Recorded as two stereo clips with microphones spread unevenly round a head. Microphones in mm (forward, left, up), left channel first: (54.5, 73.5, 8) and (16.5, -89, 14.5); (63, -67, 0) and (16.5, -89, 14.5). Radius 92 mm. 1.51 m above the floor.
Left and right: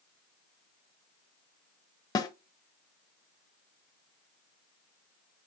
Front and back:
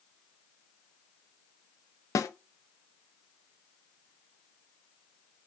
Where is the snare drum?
10° left, 0.5 m.